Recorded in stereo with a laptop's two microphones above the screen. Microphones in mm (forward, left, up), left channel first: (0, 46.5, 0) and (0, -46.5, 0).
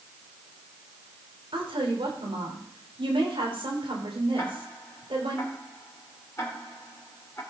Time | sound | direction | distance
1.5 | a woman speaking | 80° right | 3 m
4.4 | ticking | 30° left (ahead or behind) | 3 m